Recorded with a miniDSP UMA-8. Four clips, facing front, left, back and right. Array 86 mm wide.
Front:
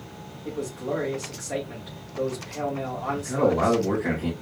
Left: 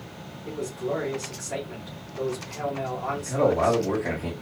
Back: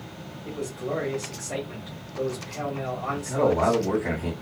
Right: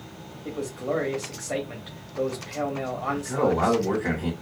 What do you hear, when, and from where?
0.5 s a man speaking: 80° right, 1.8 m
3.1 s a man speaking: 50° right, 3.5 m